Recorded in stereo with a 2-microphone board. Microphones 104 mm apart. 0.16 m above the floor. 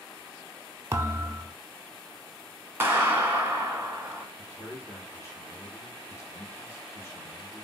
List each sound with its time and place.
0.9 s a thud: 30° right (ahead or behind), 0.5 m
2.8 s a clap: 20° right (ahead or behind), 1.0 m
4.4 s a man speaking: 30° left (ahead or behind), 1.3 m